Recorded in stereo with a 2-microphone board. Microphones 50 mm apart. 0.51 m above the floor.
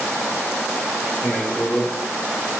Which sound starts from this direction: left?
A man speaking, at 1.2 s.